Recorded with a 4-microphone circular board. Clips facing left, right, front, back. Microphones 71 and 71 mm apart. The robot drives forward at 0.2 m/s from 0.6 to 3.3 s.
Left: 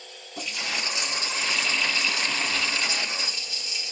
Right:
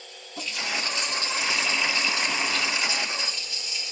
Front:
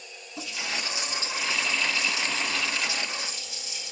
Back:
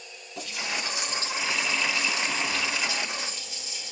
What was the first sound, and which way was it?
A running tap, 165° left.